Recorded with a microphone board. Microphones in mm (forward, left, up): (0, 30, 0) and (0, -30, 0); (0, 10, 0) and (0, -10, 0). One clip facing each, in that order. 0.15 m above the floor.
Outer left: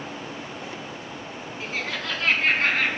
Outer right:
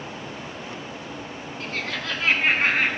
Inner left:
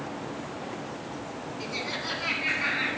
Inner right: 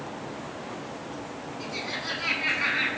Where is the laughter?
15° left (ahead or behind), 1.5 m; by 2.9 s 20° right (ahead or behind), 1.6 m.